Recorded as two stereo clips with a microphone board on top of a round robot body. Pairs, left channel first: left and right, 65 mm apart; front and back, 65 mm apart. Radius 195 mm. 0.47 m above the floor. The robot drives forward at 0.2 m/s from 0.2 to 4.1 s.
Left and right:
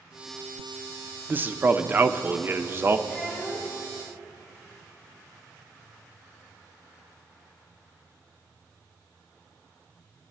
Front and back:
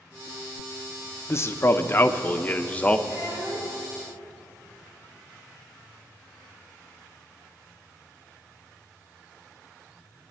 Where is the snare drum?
No snare drum in this recording.